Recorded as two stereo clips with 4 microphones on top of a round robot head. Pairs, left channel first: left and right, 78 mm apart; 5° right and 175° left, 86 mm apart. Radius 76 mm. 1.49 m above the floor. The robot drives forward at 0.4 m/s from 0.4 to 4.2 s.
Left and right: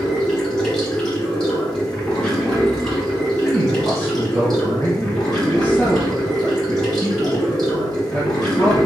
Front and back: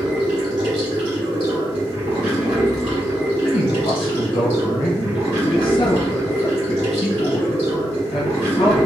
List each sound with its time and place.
0.0 s running water: 160° left, 1.1 m; by 8.9 s 175° left, 2.5 m
3.4 s a man speaking: 10° left, 1.3 m; by 8.9 s 15° left, 1.0 m